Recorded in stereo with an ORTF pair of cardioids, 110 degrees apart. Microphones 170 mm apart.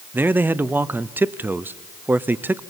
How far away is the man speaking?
About 0.7 m.